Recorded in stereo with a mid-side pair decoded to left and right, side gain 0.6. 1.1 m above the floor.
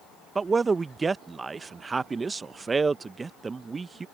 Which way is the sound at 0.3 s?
25° right.